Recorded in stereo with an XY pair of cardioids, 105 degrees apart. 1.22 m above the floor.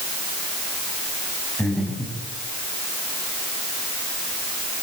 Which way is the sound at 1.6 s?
10° left.